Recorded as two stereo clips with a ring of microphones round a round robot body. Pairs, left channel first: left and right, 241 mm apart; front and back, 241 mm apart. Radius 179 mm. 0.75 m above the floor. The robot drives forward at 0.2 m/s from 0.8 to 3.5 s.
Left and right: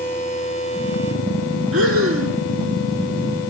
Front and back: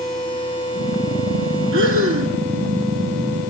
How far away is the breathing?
About 1.5 m.